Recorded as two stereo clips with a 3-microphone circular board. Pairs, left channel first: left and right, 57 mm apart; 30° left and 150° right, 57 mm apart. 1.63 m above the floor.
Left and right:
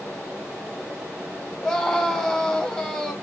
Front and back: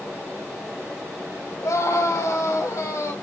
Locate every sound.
1.6 s a scream: 20° left, 3.5 m